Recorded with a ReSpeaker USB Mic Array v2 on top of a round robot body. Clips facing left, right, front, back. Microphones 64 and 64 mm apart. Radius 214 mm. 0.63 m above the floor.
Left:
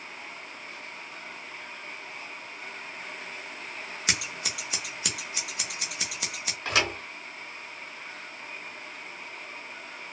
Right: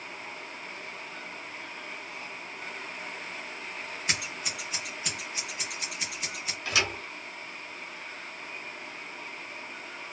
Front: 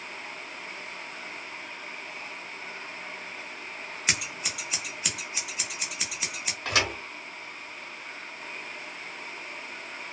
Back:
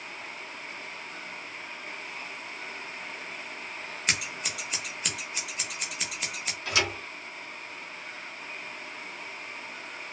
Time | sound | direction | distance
4.1 | scissors | 90° left | 0.8 m
6.7 | a thud | 40° left | 0.8 m